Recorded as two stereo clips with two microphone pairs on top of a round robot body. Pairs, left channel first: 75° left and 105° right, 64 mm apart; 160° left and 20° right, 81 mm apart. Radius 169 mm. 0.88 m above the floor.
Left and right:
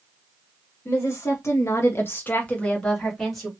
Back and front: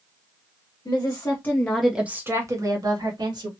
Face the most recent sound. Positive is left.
turn(degrees=-15)